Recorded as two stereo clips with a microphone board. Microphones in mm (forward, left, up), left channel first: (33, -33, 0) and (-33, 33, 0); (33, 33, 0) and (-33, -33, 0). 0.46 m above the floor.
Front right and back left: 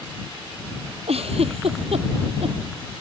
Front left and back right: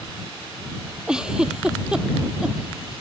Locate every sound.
1.1 s a giggle: 145° left